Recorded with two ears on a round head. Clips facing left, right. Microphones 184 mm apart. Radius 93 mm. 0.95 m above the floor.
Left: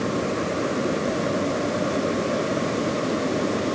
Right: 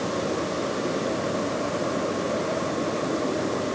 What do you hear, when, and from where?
Only background noise.